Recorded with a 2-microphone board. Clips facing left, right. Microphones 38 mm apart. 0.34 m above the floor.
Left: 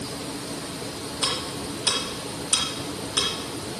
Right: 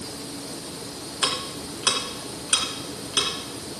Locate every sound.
1.2 s ticking: 70° right (ahead or behind), 2.5 m